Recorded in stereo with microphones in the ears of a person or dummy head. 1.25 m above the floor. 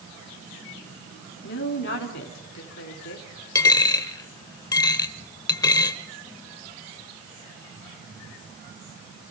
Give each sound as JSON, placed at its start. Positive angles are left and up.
{"t": 1.4, "sound": "a woman speaking", "side_deg": 55, "distance_m": 3.0}
{"t": 3.5, "sound": "a dropped coin", "side_deg": 20, "distance_m": 1.3}